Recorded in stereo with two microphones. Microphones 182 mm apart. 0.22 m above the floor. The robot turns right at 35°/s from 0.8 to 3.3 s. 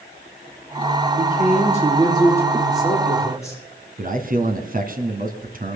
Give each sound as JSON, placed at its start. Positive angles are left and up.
{"t": 1.2, "sound": "a man speaking", "azimuth_deg": -60, "distance_m": 8.5}
{"t": 4.0, "sound": "a man speaking", "side_deg": -50, "distance_m": 2.0}